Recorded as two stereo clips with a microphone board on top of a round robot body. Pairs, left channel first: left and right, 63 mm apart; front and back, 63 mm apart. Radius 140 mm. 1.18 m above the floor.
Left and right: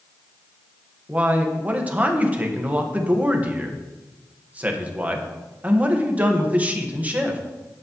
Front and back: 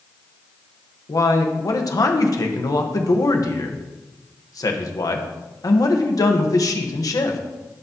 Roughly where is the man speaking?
Ahead right.